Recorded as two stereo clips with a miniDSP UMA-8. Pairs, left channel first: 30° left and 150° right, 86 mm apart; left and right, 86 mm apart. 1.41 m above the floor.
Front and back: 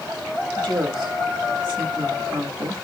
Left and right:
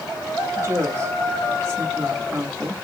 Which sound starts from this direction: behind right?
A woman speaking, at 0.6 s.